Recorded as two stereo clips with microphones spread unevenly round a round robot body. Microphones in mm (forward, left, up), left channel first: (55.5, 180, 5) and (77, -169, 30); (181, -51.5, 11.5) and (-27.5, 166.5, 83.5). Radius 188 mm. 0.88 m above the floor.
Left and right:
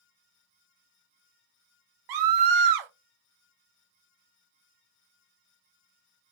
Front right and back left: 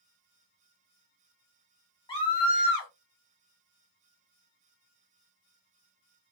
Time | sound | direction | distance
2.1 | a scream | 110° right | 0.7 m